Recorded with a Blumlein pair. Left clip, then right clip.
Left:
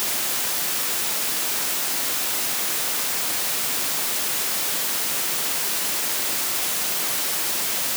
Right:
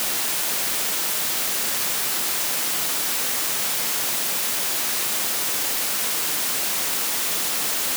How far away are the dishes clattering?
I don't hear dishes clattering.